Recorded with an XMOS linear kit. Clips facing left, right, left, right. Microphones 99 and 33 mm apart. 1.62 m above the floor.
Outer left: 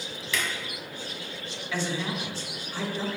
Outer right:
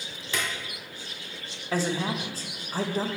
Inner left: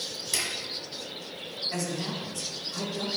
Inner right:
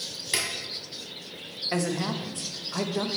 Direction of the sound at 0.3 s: 40° right (ahead or behind).